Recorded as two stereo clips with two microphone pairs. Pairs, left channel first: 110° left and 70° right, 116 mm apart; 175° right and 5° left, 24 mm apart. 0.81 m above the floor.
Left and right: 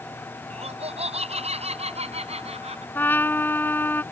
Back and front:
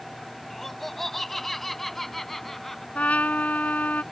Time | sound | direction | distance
0.5 | laughter | 95° right | ?
3.0 | a trumpet | straight behind | ?